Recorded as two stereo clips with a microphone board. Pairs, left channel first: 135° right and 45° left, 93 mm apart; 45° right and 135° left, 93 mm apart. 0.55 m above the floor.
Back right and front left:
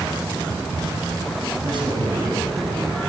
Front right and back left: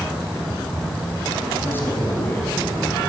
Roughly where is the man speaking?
Ahead.